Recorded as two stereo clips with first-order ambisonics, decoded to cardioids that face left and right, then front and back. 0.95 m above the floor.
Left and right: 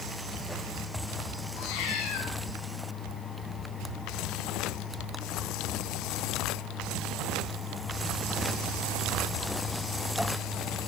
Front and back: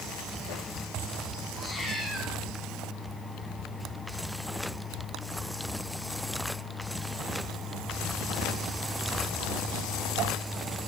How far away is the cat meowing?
About 6 m.